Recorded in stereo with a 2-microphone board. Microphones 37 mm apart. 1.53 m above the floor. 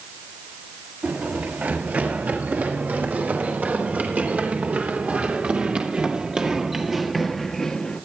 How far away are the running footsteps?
About 7 m.